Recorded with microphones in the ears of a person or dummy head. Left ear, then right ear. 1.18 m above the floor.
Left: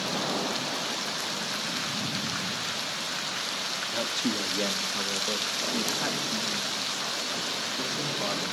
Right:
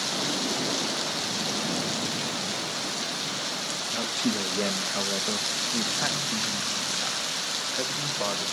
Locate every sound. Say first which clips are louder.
3.9 s a man speaking: right 2 dB; centre (ahead or behind), 1.5 m; by 8.5 s 45° right (ahead or behind), 3.5 m